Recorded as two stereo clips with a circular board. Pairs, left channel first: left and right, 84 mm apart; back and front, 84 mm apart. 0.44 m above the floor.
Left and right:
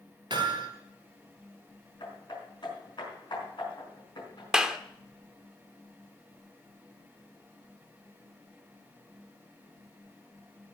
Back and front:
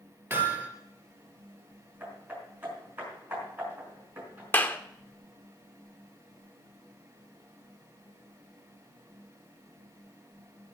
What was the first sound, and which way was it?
Hammering, 70° right.